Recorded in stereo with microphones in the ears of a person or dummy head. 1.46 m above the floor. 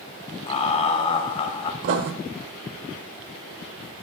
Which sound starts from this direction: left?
Laughter, at 0.5 s.